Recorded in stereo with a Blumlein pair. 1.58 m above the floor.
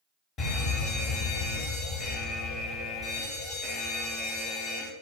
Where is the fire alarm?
25° left, 1.8 m.